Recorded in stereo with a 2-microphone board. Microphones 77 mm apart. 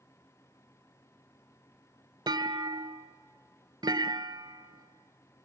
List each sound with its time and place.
2.3 s a clunk: 70° right (ahead or behind), 0.5 m